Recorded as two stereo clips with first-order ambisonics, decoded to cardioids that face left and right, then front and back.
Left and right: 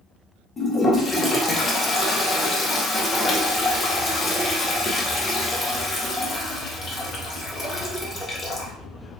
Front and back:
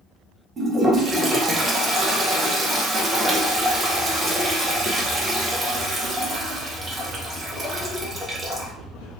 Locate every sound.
0.6 s a toilet flushing: 130° left, 0.5 m